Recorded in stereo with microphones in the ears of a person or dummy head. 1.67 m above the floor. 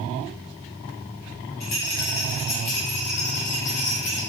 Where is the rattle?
55° left (ahead or behind), 1.0 m.